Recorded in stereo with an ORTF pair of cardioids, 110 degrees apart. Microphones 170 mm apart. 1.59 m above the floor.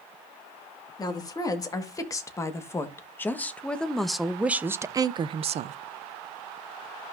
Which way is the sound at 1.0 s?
25° left.